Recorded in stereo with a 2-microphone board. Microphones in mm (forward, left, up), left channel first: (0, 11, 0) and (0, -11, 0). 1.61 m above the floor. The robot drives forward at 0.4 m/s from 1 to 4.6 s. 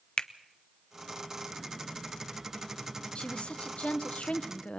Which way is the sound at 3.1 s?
60° left (ahead or behind).